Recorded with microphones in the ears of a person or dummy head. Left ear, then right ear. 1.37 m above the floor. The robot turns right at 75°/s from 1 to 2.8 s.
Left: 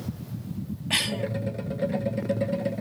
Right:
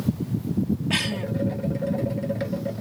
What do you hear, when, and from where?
0.9 s a cough: 20° left (ahead or behind); by 1.2 s centre (ahead or behind)